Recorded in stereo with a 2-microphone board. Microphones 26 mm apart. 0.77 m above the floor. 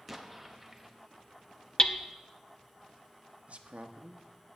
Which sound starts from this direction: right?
A man speaking, at 3.5 s.